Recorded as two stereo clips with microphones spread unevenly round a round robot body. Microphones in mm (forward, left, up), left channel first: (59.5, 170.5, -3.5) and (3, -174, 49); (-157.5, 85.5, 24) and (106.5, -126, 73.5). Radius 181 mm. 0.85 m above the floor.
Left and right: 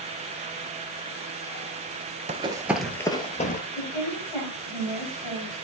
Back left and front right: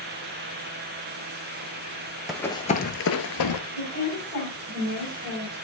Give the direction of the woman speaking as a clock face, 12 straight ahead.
9 o'clock.